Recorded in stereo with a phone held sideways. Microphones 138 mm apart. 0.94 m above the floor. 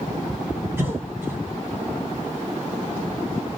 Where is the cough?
15° right (ahead or behind), 2 m.